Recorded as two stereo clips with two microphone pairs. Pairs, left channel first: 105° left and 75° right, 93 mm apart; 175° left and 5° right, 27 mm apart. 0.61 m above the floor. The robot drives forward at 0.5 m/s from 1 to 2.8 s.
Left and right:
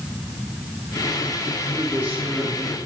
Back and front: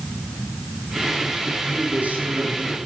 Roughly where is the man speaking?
Ahead.